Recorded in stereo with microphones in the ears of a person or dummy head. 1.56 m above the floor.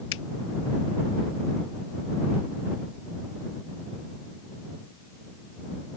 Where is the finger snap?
75° left (ahead or behind).